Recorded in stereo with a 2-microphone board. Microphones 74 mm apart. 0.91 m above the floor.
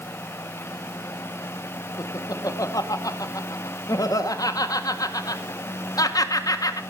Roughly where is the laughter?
Left.